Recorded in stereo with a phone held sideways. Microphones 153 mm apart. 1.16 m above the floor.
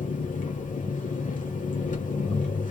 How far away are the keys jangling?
No keys jangling in this recording.